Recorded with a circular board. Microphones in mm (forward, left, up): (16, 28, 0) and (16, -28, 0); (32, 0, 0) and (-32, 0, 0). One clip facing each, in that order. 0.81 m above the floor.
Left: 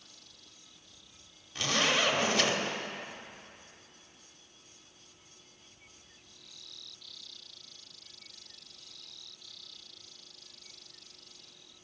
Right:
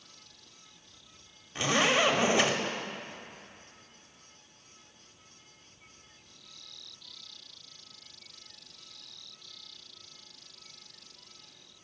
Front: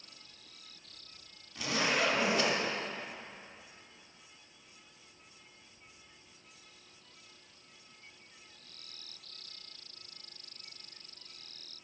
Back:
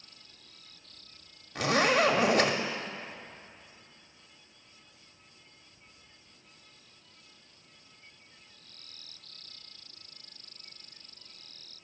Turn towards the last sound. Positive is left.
turn(degrees=-155)